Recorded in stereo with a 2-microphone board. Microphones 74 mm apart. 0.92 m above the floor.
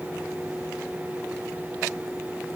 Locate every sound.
Only background noise.